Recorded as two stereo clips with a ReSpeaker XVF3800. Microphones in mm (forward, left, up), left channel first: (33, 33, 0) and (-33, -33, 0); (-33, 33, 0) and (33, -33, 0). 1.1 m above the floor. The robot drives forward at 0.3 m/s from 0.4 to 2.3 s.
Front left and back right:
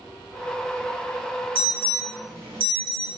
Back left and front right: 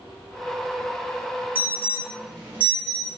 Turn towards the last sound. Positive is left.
turn(degrees=-120)